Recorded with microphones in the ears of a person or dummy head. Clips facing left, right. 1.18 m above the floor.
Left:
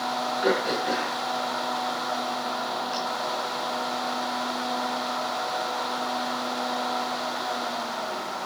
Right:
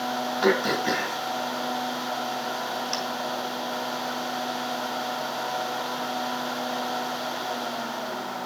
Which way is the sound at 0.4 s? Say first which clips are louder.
Right 2 dB; 70° right (ahead or behind).